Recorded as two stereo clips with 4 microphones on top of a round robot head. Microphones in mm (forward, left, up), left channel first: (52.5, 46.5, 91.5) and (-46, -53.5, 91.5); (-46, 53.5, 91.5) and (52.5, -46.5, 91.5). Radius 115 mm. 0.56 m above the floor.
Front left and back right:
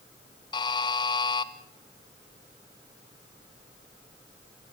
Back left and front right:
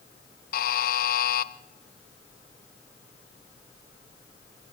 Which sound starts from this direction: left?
A buzzer, at 0.5 s.